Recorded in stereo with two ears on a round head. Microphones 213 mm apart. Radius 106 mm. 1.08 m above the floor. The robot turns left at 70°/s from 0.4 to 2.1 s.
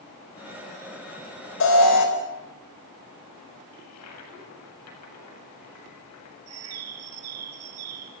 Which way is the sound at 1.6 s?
120° left.